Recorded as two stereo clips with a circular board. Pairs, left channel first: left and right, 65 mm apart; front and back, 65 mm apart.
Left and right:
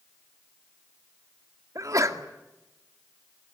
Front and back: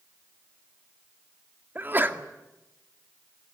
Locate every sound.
1.8 s a sneeze: 120° right, 2 m